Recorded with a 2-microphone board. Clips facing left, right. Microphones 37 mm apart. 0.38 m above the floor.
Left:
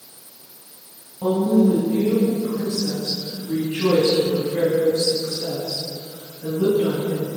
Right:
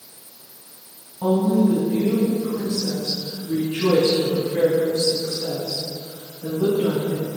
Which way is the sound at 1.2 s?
15° right (ahead or behind).